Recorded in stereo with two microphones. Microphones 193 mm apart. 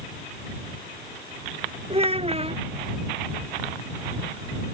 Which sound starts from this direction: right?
A child speaking, at 1.9 s.